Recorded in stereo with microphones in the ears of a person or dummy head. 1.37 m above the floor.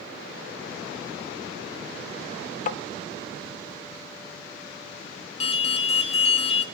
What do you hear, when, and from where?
2.7 s tapping: 40° left (ahead or behind), 0.5 m
5.4 s an alarm: 30° left (ahead or behind), 0.6 m